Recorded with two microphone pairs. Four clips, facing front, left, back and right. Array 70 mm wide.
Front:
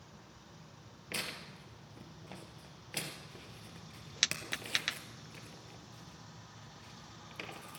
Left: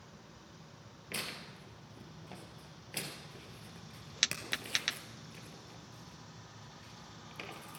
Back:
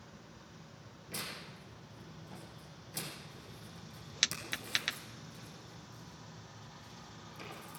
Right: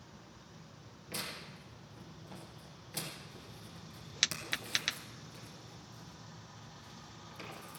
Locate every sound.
1.1 s tearing paper: 25° left, 2 m